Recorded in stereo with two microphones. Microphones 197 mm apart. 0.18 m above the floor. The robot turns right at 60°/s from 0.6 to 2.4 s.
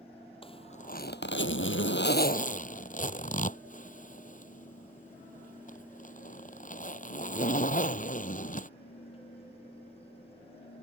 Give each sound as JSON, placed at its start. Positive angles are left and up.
{"t": 0.4, "sound": "a zipper", "side_deg": 30}